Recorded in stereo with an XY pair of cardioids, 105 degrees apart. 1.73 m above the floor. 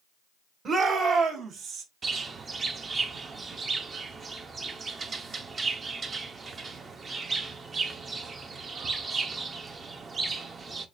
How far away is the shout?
About 1.9 m.